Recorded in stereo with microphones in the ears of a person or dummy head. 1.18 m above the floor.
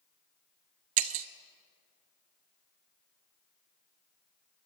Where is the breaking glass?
35° right (ahead or behind), 0.6 m.